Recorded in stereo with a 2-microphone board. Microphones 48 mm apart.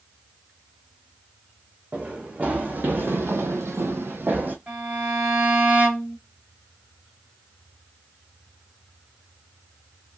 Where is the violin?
35° right (ahead or behind), 1.8 m.